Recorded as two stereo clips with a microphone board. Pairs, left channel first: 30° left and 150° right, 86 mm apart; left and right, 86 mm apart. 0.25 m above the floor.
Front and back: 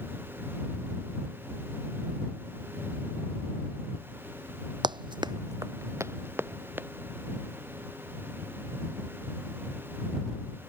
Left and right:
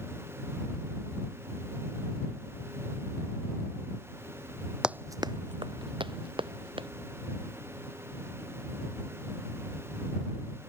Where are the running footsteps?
170° right; by 6.9 s 85° right.